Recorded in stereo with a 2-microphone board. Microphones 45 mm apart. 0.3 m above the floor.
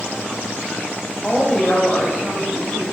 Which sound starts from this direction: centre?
A woman speaking, at 1.2 s.